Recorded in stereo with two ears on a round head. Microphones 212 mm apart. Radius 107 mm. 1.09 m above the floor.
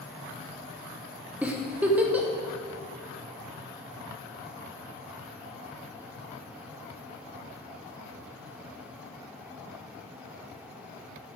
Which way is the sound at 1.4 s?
5° right (ahead or behind).